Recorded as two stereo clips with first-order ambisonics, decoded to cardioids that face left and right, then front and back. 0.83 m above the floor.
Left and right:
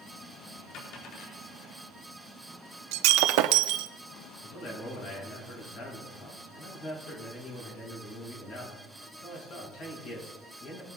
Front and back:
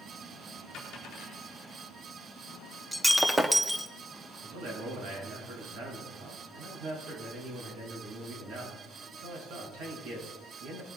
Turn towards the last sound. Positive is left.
turn(degrees=140)